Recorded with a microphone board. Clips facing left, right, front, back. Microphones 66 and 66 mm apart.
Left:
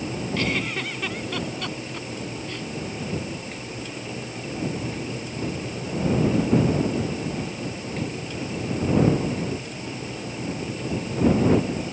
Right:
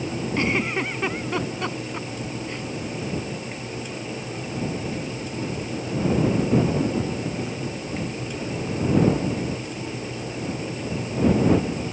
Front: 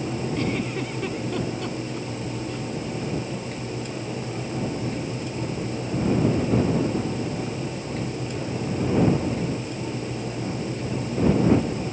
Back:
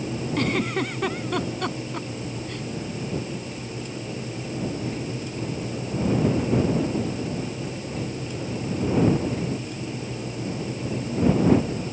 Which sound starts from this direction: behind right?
A giggle, at 0.4 s.